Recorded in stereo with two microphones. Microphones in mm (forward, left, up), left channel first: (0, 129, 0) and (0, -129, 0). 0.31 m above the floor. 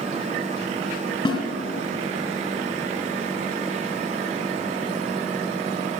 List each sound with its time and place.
1.2 s a snare drum: 15° left (ahead or behind), 2.5 m